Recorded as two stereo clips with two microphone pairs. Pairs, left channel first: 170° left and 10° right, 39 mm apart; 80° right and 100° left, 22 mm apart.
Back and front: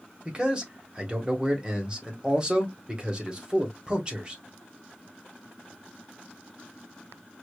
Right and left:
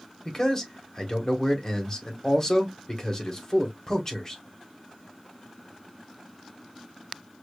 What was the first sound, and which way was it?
A man speaking, 45° right.